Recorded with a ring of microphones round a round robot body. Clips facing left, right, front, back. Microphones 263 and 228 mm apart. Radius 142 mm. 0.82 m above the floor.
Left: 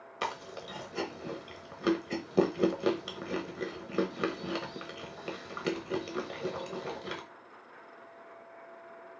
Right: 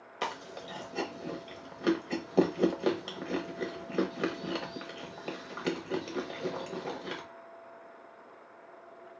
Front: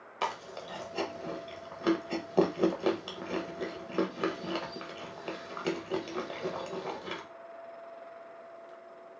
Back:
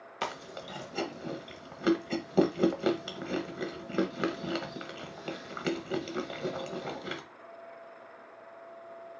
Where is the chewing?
155° left, 1.0 m.